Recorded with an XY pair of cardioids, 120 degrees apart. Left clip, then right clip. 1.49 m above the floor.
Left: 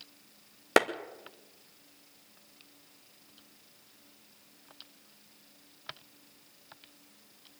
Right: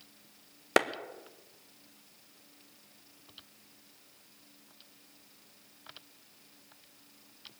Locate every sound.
0.8 s a clap: 15° left, 1.3 m